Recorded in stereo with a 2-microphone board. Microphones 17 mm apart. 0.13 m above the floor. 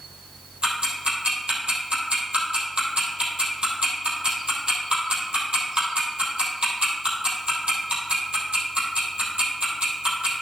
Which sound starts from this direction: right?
Ticking, at 0.6 s.